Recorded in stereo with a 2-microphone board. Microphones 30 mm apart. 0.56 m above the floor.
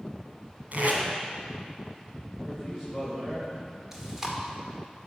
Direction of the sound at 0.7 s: 60° right (ahead or behind).